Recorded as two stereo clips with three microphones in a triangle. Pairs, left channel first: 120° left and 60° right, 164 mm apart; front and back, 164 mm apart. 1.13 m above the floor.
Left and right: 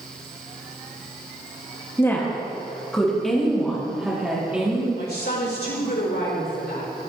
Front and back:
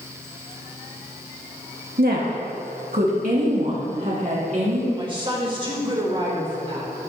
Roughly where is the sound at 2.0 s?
Behind.